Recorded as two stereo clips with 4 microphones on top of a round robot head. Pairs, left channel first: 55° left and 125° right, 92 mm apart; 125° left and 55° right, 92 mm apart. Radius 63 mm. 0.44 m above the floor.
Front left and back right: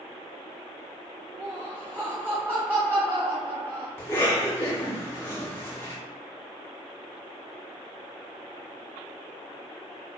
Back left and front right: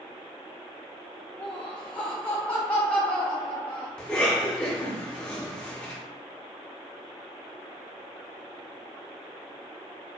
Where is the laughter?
170° right, 0.8 m.